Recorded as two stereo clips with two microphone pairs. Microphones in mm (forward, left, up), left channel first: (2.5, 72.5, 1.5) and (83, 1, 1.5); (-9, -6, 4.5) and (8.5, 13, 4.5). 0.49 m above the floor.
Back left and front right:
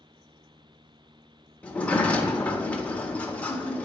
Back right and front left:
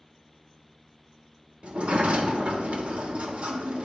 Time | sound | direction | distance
1.6 | a sliding door | 60° left | 0.9 m